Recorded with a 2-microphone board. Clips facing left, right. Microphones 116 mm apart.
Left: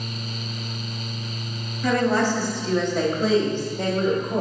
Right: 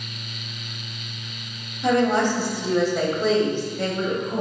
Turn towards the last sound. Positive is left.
turn(degrees=30)  # may be behind; listen again after turning